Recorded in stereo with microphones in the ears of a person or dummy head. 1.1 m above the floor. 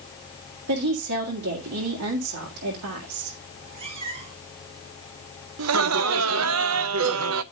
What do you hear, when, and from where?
0.7 s a woman speaking: 85° right, 1.9 m
3.5 s a cat meowing: 35° right (ahead or behind), 8.5 m
5.6 s laughter: 75° right (ahead or behind), 0.8 m